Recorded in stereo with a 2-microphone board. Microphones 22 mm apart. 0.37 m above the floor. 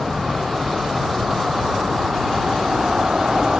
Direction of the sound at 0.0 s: 25° right (ahead or behind).